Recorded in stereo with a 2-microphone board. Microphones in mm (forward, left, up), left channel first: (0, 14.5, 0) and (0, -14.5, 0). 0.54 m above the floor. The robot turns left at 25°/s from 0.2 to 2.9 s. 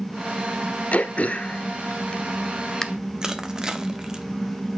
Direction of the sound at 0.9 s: 55° left (ahead or behind).